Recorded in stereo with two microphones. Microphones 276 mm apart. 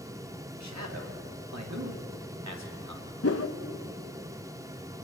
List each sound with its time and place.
0.6 s a man speaking: 80° right, 3.5 m
3.2 s a whoosh: 60° left (ahead or behind), 1.0 m